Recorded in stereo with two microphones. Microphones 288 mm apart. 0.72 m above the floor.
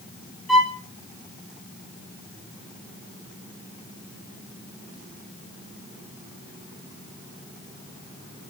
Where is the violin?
Centre (ahead or behind), 2 m.